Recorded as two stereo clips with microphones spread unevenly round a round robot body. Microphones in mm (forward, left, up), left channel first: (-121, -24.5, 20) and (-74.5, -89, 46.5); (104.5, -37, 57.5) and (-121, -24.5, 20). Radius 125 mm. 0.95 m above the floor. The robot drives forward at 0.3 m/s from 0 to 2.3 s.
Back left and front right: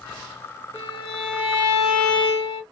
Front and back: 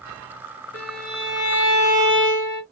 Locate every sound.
0.7 s a violin: 65° left, 1.0 m; by 2.6 s 105° left, 0.9 m